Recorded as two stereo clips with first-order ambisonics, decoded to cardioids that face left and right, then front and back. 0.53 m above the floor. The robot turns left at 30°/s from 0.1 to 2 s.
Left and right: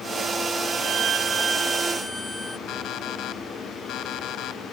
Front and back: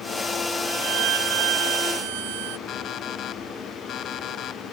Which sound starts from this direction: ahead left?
An alarm clock, at 2.7 s.